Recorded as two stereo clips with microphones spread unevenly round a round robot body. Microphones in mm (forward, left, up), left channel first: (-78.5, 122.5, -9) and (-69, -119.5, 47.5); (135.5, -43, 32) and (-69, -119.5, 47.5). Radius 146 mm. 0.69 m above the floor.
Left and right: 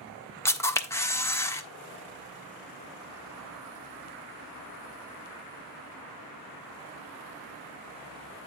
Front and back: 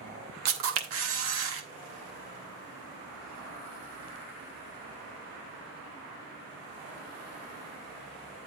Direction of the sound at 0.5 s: 165° left.